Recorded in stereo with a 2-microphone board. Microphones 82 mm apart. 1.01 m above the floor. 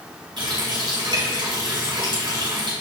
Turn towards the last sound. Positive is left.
turn(degrees=-80)